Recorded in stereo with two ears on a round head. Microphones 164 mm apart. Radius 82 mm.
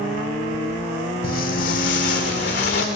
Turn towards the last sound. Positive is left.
turn(degrees=45)  # may be behind; listen again after turning